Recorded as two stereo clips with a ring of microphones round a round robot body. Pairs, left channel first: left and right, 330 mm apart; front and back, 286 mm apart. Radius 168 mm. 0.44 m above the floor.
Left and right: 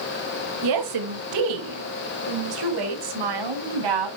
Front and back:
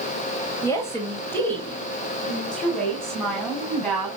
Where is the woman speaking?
80° right, 2.5 m; by 4.1 s 90° right, 4.5 m.